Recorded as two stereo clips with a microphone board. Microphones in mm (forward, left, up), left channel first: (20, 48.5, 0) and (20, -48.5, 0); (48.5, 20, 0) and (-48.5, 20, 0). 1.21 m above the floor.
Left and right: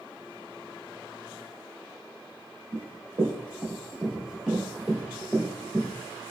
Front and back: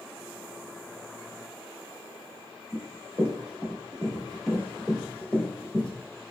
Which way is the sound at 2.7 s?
115° right.